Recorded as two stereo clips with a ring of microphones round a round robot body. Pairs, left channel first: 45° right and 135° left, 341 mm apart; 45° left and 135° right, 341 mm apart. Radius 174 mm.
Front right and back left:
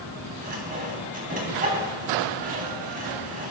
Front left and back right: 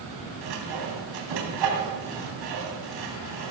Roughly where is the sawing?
Behind right.